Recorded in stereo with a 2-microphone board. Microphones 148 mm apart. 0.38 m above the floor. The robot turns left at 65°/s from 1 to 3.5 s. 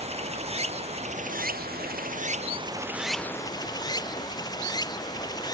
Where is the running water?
45° right; by 5.5 s 155° left.